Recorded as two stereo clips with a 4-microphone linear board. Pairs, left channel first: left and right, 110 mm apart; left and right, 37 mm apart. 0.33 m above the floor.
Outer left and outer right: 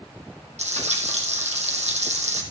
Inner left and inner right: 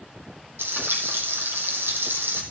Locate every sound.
0.6 s frying: 90° right, 2.5 m